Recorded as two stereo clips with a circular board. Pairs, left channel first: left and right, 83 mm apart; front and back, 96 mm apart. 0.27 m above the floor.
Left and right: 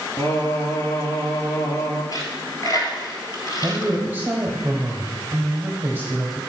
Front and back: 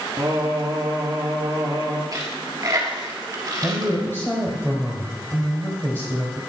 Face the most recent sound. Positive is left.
turn(degrees=-50)